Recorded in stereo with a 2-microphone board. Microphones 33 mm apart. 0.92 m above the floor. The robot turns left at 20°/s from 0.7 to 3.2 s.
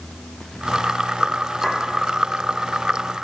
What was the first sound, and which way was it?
A clink, 20° left (ahead or behind).